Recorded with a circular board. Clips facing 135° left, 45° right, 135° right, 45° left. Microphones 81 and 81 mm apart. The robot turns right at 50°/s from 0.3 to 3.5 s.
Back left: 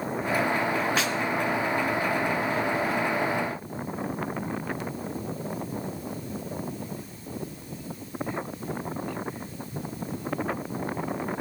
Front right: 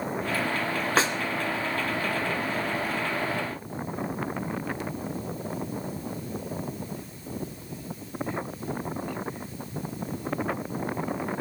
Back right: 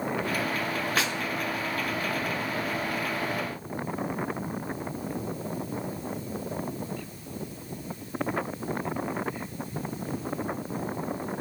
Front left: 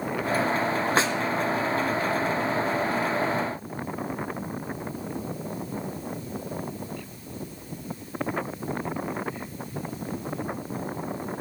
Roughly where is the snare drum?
Ahead.